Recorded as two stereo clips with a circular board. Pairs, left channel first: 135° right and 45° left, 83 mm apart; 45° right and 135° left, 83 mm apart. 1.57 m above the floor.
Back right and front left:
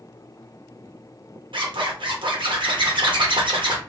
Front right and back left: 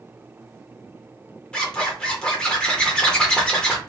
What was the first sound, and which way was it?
A zipper, 35° left.